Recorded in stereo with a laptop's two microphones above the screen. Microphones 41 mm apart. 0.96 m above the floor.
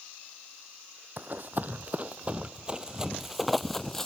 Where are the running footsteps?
50° right (ahead or behind); by 4.1 s 10° left (ahead or behind).